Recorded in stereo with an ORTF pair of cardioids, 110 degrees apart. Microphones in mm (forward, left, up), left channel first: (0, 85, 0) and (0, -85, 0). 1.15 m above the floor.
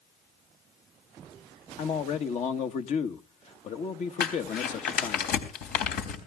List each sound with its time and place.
1.8 s a man speaking: 45° left, 1.4 m
4.2 s crumpling: 70° left, 4 m